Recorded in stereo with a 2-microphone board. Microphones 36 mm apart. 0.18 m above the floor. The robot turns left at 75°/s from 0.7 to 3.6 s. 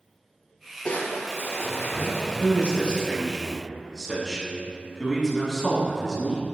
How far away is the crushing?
About 0.6 m.